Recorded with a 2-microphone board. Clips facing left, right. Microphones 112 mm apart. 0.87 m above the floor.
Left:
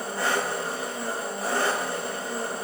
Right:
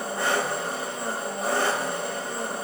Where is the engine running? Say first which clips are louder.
Right 1 dB; 25° right (ahead or behind), 1.4 m.